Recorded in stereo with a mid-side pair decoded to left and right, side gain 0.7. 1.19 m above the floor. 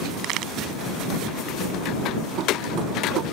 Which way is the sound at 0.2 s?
60° right.